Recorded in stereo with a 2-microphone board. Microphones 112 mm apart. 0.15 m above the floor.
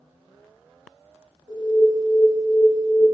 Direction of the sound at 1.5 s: 35° right (ahead or behind).